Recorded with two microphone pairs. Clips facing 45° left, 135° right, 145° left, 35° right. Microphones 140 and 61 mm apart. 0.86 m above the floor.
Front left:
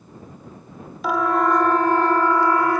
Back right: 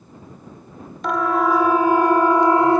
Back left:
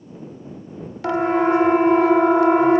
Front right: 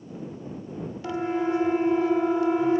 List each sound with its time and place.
1.0 s a siren: 130° left; by 2.8 s 160° left